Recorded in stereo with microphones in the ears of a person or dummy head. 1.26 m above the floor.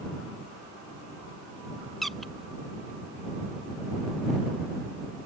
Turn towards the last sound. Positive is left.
turn(degrees=0)  # may be behind; listen again after turning